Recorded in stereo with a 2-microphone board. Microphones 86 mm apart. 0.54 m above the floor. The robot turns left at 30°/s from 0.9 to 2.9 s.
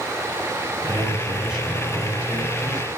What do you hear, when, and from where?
0.9 s a man speaking: 155° right, 5.5 m; by 2.9 s 145° left, 5.5 m